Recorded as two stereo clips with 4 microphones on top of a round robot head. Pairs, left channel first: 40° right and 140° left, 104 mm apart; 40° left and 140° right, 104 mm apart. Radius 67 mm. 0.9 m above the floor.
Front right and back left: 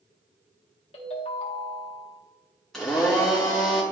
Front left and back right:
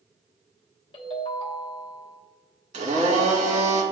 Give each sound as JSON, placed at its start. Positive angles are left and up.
{"t": 0.9, "sound": "a ringtone", "azimuth_deg": -5, "distance_m": 1.1}
{"t": 2.7, "sound": "a blender", "azimuth_deg": -120, "distance_m": 1.9}